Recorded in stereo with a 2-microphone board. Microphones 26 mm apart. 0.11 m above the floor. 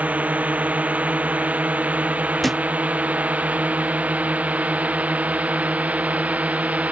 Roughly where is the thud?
Centre.